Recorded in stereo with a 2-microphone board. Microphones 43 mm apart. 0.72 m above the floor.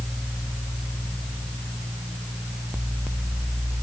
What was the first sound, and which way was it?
Only background noise.